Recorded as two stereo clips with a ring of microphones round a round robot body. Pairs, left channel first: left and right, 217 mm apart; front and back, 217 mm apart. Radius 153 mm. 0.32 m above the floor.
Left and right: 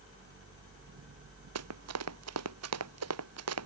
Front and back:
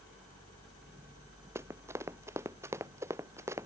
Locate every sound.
1.6 s running footsteps: 100° right